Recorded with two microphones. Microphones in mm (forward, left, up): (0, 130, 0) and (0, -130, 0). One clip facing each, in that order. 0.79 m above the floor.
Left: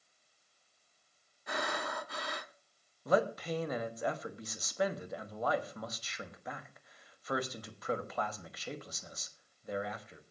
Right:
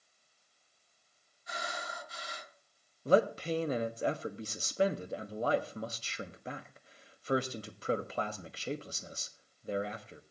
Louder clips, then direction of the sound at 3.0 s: Right 3 dB; 30° right (ahead or behind).